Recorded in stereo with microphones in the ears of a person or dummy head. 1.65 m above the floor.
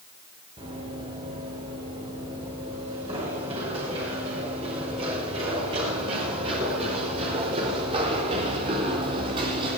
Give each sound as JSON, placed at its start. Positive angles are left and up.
{"t": 0.6, "sound": "running footsteps", "side_deg": -30, "distance_m": 8.5}